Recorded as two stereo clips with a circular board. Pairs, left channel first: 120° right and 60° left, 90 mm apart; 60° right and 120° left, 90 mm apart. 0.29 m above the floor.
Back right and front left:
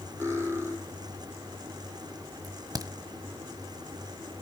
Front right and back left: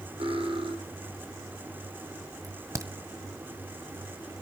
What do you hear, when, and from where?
0.2 s cutlery clinking: 120° left, 6.5 m
2.4 s a crack: 85° left, 1.4 m